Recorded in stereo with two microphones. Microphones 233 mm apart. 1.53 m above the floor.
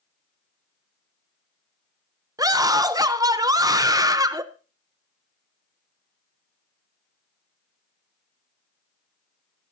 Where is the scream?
15° right (ahead or behind), 1.0 m.